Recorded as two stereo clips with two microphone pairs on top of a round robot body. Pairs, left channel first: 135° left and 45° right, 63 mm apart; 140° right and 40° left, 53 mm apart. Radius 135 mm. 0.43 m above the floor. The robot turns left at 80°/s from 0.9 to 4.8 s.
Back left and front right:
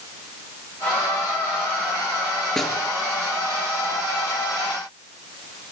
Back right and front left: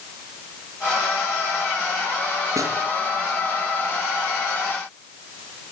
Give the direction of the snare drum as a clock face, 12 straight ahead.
10 o'clock.